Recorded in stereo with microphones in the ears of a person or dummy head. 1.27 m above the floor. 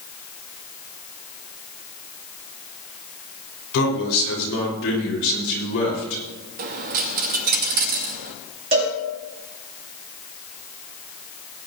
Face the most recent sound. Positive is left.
turn(degrees=-40)  # may be behind; listen again after turning